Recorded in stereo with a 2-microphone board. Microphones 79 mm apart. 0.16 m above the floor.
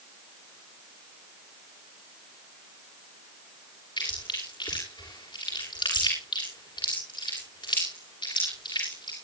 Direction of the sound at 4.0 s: 85° left.